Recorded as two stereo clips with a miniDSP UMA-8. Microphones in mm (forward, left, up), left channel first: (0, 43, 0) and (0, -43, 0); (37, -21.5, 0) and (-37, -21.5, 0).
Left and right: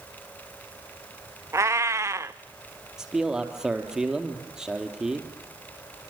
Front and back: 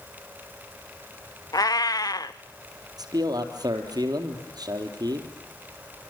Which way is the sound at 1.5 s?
35° right.